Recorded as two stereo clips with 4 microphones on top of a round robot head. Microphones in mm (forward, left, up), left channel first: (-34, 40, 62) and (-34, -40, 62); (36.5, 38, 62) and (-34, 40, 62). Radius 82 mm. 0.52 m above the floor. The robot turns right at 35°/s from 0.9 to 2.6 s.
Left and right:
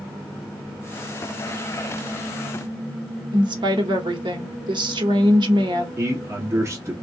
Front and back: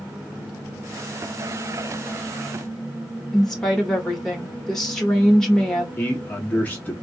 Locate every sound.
3.3 s a woman speaking: 85° right, 1.4 m
6.0 s a man speaking: 60° right, 1.4 m